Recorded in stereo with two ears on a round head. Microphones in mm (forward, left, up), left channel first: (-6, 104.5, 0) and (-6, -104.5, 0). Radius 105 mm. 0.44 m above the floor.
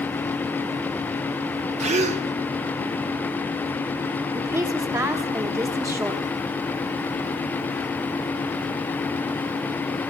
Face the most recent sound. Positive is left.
turn(degrees=-15)  # may be behind; listen again after turning